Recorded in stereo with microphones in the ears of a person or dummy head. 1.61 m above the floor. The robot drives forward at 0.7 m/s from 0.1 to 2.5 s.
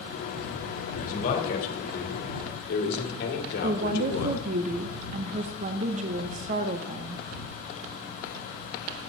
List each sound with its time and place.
1.0 s a man speaking: 45° left (ahead or behind), 2.5 m; by 4.4 s 65° left (ahead or behind), 1.9 m
3.6 s a woman speaking: 40° right (ahead or behind), 0.6 m